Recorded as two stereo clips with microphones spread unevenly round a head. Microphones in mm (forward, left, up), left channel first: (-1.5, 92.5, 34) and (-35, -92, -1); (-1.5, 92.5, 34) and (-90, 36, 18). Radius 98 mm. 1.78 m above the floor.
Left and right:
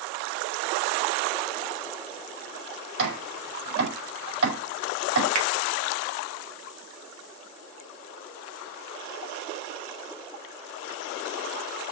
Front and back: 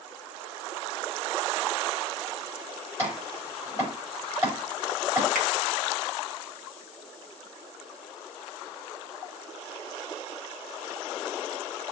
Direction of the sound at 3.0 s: 70° right.